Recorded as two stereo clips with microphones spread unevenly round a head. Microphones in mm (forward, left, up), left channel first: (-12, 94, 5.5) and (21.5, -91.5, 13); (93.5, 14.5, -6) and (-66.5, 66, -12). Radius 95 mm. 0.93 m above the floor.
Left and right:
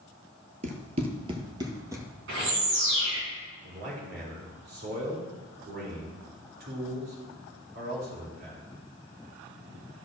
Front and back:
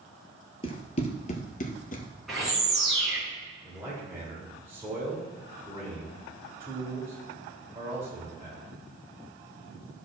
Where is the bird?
105° right, 3.5 m.